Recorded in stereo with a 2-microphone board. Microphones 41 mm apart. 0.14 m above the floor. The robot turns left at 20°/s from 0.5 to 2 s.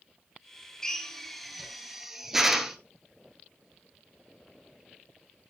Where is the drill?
10° left (ahead or behind), 1.2 m; by 2.8 s 10° right (ahead or behind), 1.2 m.